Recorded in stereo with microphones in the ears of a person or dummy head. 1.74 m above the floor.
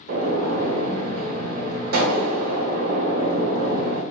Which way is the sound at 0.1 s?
60° right (ahead or behind).